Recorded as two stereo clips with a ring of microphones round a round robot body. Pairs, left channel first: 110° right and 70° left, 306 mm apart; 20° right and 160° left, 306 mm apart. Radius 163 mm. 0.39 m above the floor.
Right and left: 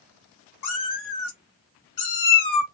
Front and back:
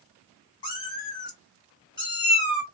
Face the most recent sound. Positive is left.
turn(degrees=-95)